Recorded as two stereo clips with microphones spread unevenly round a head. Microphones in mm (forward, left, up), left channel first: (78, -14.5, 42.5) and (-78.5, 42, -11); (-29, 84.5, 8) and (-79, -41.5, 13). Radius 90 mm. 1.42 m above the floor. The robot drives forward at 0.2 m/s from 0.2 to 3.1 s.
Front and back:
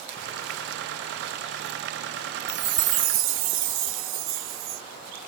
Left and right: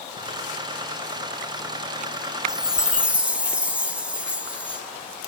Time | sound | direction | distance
2.5 | a chime | 170° left | 0.5 m